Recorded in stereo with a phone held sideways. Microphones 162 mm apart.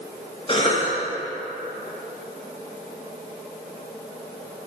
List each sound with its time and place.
0.5 s a cough: 35° left (ahead or behind), 1.2 m